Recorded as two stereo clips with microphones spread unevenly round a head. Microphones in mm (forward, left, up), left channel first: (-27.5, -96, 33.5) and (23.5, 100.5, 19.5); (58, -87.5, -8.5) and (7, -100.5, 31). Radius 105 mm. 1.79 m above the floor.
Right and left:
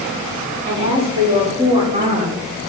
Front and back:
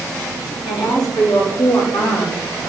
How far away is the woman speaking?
About 4.5 m.